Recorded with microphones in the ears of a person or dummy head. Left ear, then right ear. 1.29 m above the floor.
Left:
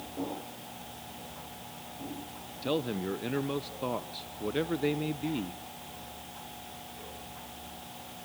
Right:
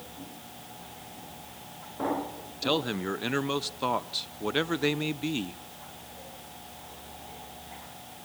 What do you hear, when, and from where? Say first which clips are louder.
2.6 s a man speaking: right 4 dB; 30° right (ahead or behind), 0.6 m